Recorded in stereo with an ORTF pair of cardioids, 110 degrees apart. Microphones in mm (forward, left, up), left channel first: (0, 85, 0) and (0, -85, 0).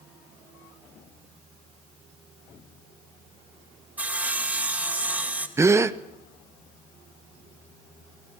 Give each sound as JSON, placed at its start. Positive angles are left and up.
{"t": 4.0, "sound": "sawing", "azimuth_deg": -10, "distance_m": 2.0}
{"t": 5.6, "sound": "a gasp", "azimuth_deg": -15, "distance_m": 0.7}